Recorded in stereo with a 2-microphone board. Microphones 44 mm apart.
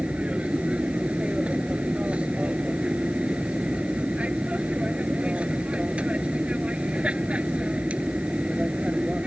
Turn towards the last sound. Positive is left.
turn(degrees=-25)  # may be behind; listen again after turning